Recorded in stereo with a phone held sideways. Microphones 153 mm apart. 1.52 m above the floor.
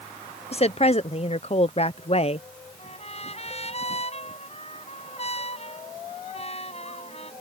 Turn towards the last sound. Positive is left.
turn(degrees=45)  # may be behind; listen again after turning